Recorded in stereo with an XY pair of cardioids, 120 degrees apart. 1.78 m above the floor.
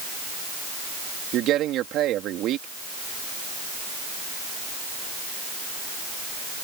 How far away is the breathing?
I don't hear breathing.